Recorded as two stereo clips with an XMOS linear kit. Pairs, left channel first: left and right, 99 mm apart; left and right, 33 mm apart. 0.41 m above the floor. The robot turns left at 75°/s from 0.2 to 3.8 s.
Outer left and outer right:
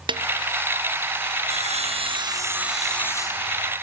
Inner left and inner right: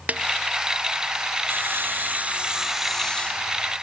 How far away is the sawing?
About 2.5 m.